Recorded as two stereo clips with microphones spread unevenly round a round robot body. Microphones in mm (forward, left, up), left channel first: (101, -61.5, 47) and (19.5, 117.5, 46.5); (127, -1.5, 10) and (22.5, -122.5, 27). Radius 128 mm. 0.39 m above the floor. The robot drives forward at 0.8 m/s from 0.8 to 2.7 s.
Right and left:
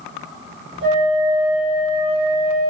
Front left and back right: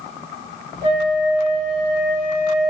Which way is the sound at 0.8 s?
100° left.